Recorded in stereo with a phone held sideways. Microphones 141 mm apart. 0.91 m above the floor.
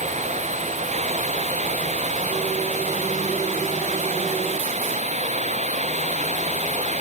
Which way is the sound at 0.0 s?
55° right (ahead or behind).